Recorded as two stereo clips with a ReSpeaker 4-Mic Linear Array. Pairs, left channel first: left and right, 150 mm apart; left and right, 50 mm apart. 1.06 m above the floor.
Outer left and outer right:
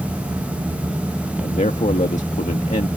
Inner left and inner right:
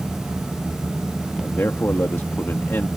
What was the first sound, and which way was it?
A man speaking, 50° left (ahead or behind).